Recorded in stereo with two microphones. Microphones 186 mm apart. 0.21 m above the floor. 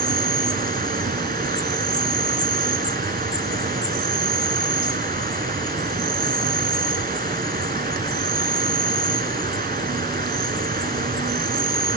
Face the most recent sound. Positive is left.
turn(degrees=-55)  # may be behind; listen again after turning